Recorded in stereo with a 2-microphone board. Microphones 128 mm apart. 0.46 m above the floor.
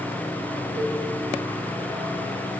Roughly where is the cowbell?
Right.